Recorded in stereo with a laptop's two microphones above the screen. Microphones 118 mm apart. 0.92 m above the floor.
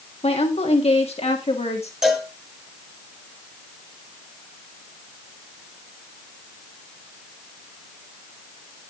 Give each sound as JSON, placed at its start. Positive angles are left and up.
{"t": 0.2, "sound": "a woman speaking", "side_deg": 65, "distance_m": 1.7}
{"t": 2.0, "sound": "a cowbell", "side_deg": -5, "distance_m": 1.5}